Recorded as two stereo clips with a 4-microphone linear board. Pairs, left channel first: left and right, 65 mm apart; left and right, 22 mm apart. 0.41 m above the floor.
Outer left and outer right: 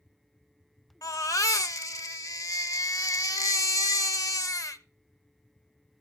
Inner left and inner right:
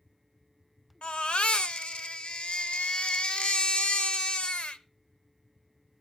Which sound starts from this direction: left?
A baby crying, at 1.0 s.